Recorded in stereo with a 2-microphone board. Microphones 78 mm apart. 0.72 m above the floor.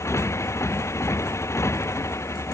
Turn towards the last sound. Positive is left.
turn(degrees=35)  # may be behind; listen again after turning